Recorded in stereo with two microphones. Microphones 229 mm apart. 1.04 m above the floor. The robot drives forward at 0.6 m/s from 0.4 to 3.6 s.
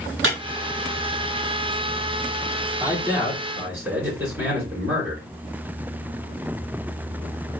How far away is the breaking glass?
About 2.5 m.